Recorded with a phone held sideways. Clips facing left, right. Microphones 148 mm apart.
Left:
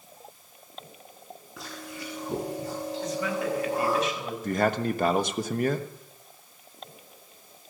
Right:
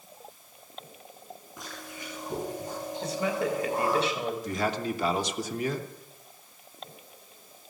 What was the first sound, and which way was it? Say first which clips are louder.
Chewing: left 4 dB; 85° left.